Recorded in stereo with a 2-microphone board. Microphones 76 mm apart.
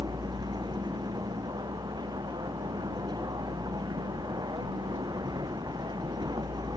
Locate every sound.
0.0 s a vehicle: 65° right (ahead or behind)